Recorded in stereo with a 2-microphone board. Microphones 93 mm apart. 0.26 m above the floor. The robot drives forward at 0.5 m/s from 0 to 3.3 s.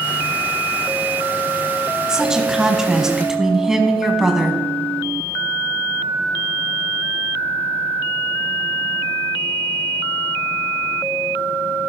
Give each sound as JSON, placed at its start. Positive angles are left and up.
{"t": 2.1, "sound": "a woman speaking", "side_deg": -10, "distance_m": 1.2}